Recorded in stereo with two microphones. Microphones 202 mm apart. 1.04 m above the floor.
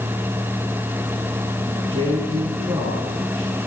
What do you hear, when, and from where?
1.7 s a man speaking: 20° right (ahead or behind), 9 m